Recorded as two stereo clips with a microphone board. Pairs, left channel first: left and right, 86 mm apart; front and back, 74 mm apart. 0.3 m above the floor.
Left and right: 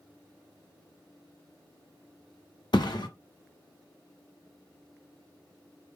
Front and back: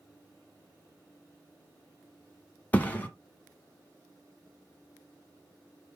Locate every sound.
2.7 s a thud: 65° left, 1.1 m